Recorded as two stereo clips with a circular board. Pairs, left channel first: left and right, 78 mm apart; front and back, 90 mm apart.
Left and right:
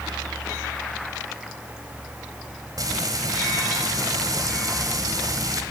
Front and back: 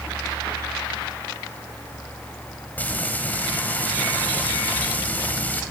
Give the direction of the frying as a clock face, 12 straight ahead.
2 o'clock.